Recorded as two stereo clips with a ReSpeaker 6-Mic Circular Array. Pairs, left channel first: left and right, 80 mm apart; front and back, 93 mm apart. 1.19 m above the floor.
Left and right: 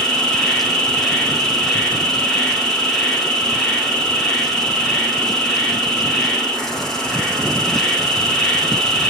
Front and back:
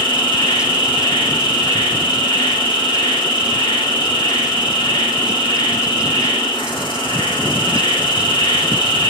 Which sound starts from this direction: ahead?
An insect, at 0.0 s.